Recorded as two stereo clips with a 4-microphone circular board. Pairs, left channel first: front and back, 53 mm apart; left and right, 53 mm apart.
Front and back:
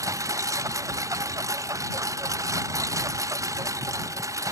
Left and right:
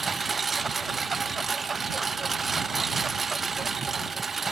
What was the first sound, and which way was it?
A lawn mower, straight behind.